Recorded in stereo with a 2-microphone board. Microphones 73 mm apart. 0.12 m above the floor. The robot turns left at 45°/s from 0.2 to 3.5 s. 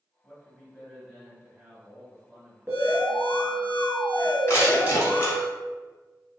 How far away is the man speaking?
About 1.3 m.